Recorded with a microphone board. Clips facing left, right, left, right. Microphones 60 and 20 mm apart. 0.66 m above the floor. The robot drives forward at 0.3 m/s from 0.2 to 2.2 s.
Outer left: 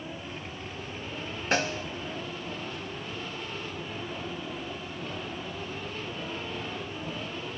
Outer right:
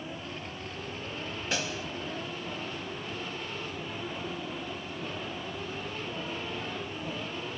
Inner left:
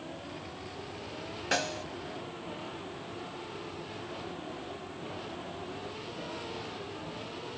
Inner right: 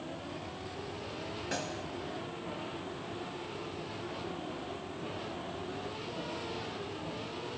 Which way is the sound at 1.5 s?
45° left (ahead or behind).